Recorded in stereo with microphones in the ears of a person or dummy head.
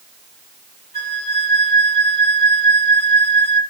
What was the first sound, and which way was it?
A flute, 35° left (ahead or behind).